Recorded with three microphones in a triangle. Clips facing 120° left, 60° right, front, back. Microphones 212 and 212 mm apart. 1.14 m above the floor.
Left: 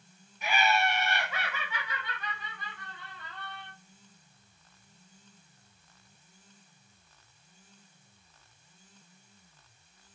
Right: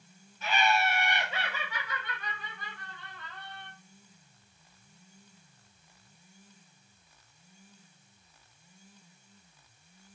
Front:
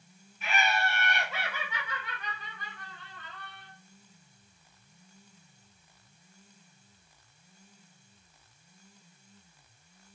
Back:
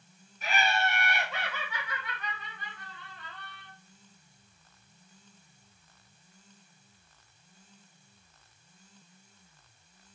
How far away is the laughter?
About 0.7 m.